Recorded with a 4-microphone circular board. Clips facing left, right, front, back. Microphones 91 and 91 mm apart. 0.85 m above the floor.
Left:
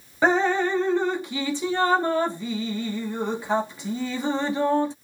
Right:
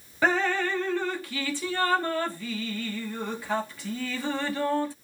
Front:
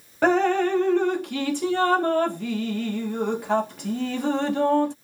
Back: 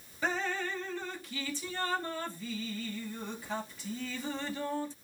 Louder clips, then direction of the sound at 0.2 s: Left 4 dB, front 14 dB; 20° left.